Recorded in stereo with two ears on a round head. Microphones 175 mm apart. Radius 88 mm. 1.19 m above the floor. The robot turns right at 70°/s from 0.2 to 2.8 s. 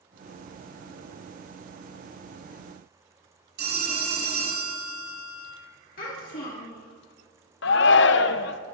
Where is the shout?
65° left (ahead or behind), 0.8 m.